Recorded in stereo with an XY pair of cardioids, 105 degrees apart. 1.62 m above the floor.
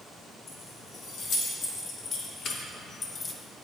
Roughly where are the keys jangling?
Ahead left.